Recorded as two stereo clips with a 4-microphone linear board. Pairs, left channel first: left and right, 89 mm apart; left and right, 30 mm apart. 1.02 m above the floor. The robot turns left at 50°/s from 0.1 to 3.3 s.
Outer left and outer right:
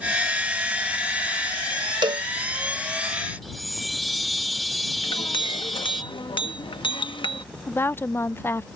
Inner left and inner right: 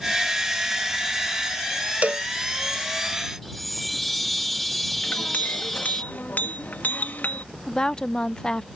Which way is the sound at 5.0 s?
70° left (ahead or behind).